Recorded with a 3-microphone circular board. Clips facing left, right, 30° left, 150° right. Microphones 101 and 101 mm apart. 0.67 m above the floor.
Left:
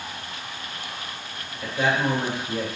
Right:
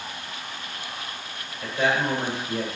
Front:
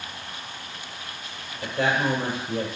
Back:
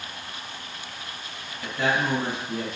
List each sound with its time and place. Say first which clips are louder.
1.6 s a man speaking: even, front 1 dB; 15° left, 2.5 m